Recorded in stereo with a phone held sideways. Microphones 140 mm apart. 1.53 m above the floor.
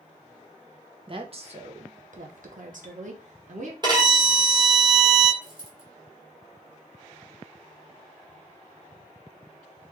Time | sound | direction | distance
1.1 | a woman speaking | 40° right (ahead or behind) | 0.9 m
3.8 | a violin | 35° right (ahead or behind) | 1.7 m
5.4 | a dropped coin | 35° right (ahead or behind) | 1.2 m